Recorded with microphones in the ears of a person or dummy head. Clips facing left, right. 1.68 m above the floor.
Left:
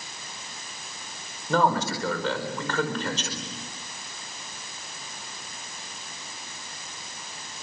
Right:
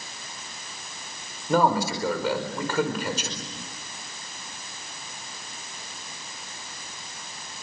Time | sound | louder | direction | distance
1.5 | a man speaking | right 2 dB | 10° right (ahead or behind) | 5 m